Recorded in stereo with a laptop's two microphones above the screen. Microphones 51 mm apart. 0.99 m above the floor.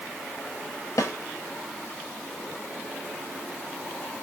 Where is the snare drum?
75° left (ahead or behind), 0.7 m.